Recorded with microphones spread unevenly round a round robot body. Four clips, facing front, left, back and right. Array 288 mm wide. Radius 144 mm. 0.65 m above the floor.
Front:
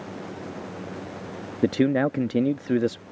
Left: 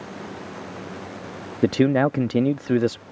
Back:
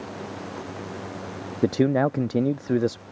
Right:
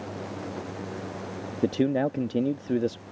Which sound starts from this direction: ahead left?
A man speaking, at 1.6 s.